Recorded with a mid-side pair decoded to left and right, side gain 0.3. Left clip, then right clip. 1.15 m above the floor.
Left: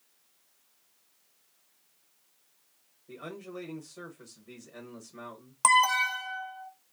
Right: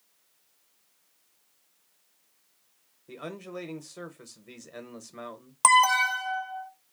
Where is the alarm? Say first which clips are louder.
Right 3 dB; 40° right, 0.5 m.